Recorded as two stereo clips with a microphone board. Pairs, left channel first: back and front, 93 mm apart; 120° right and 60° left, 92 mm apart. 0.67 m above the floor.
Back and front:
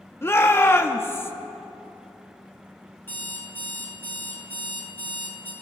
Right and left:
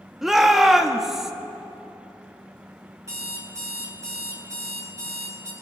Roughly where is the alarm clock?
Behind left.